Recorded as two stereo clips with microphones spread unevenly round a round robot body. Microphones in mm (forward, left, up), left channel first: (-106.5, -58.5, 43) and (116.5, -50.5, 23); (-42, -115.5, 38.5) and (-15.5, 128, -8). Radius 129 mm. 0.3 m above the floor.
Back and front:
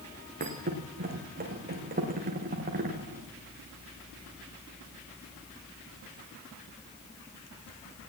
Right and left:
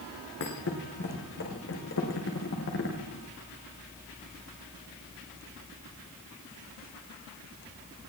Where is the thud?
50° right, 9 m.